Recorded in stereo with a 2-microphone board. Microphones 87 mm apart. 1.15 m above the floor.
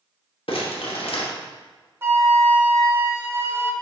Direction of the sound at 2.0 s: 25° right (ahead or behind).